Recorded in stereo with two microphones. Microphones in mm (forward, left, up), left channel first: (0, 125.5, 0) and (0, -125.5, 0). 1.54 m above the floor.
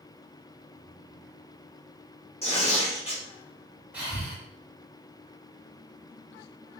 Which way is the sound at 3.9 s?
5° right (ahead or behind).